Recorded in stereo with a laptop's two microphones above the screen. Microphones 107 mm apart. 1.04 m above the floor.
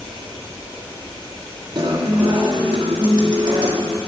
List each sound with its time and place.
1.8 s a guitar: 40° right (ahead or behind), 1.3 m